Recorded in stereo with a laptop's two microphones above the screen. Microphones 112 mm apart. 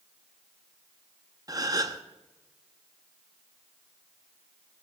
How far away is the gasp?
About 1.2 m.